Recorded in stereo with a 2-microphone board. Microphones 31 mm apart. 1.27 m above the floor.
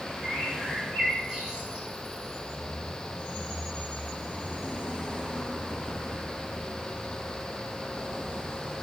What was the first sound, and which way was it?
A bird, 15° right (ahead or behind).